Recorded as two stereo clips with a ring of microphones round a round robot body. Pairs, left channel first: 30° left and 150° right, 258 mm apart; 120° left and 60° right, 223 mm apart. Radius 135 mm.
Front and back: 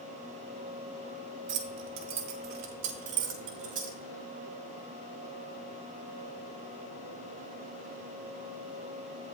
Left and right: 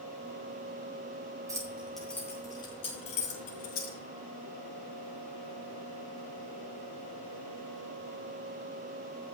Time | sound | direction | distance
1.5 | keys jangling | 135° right | 1.3 m